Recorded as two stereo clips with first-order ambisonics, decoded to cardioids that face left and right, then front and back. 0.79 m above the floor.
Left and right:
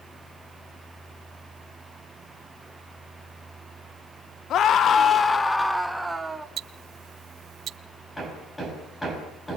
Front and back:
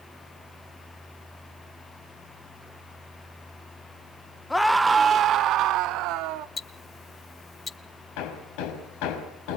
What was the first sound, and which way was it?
A scream, 80° left.